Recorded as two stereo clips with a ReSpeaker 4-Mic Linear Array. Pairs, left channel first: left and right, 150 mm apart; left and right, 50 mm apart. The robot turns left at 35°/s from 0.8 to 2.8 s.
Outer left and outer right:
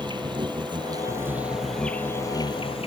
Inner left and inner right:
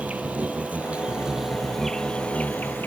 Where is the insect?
150° right; by 2.9 s 140° left.